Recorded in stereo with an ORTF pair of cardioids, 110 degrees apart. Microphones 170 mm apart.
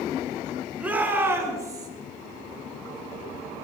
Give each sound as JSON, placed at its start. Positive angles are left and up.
{"t": 0.8, "sound": "a shout", "azimuth_deg": -10, "distance_m": 3.5}